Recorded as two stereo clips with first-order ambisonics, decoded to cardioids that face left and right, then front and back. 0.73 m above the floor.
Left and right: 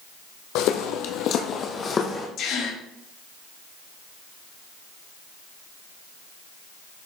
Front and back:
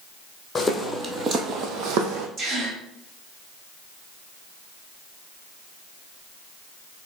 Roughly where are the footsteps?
Left.